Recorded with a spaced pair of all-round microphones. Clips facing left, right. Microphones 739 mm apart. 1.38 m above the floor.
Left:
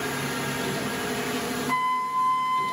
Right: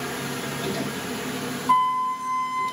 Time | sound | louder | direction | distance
1.7 | a flute | right 3 dB | 40° right (ahead or behind) | 1.9 m